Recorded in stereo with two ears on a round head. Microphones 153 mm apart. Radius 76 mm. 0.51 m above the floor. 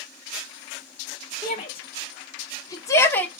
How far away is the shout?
About 1.1 m.